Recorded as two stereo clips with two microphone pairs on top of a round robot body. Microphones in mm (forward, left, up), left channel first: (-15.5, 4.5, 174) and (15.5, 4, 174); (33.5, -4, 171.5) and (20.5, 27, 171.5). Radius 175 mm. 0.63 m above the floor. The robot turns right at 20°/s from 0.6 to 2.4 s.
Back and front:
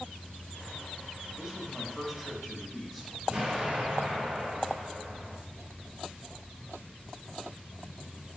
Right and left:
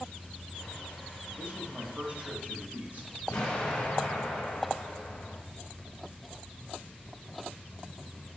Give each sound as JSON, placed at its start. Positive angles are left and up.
{"t": 1.4, "sound": "a man speaking", "azimuth_deg": 80, "distance_m": 2.0}
{"t": 3.3, "sound": "an explosion", "azimuth_deg": -70, "distance_m": 1.0}